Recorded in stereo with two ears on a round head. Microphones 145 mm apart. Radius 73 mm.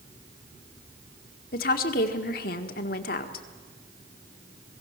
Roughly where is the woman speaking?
Left.